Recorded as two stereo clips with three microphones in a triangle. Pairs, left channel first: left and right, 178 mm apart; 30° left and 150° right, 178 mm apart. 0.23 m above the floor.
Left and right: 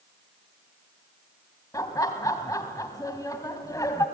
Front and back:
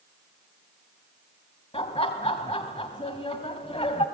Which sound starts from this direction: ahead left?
Laughter, at 1.7 s.